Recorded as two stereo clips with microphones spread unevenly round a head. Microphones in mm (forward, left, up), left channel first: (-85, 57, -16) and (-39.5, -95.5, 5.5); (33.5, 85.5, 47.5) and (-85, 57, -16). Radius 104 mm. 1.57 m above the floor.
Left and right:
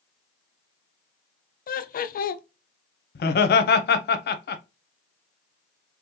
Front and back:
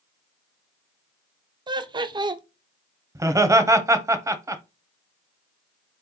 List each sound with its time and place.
1.7 s laughter: 125° left, 0.7 m
3.1 s laughter: 125° left, 0.9 m